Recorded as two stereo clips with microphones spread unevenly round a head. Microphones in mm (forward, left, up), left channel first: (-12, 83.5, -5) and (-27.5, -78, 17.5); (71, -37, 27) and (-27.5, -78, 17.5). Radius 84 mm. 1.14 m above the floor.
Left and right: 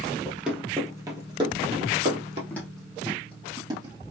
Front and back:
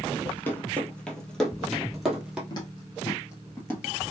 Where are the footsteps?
Straight ahead, 1.5 m; by 4.0 s 45° right, 2 m.